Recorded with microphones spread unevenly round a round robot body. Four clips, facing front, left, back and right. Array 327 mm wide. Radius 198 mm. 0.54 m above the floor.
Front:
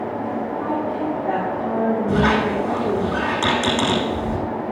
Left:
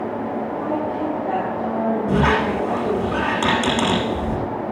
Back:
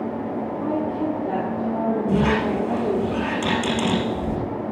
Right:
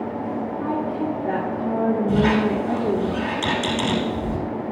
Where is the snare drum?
No snare drum in this recording.